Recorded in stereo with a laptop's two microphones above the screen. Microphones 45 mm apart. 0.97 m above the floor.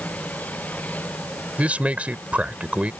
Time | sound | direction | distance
0.0 | a machine running | 35° left (ahead or behind) | ?
1.6 | a man speaking | 30° right (ahead or behind) | ?